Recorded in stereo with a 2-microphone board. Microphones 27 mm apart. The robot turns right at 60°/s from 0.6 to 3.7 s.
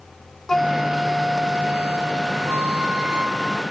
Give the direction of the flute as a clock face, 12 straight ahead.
7 o'clock.